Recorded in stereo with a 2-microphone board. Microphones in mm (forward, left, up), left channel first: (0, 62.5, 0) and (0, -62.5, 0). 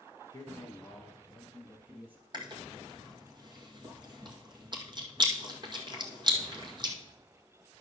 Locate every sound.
0.3 s a man speaking: 25° left (ahead or behind), 1.2 m; by 2.2 s 10° right (ahead or behind), 3 m
2.3 s chewing: 35° right (ahead or behind), 1.8 m